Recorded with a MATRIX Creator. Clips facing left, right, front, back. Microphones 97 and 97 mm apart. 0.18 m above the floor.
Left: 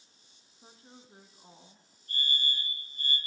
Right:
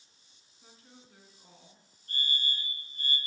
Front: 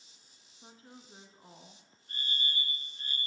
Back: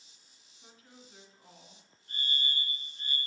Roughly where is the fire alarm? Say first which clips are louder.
Left 1 dB, back 1 dB; right.